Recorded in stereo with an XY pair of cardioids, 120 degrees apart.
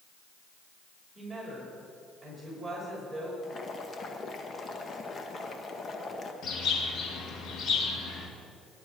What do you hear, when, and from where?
1.1 s a woman speaking: 15° right, 5.5 m
3.4 s boiling: 35° left, 1.4 m
6.4 s a bird: 60° left, 2.5 m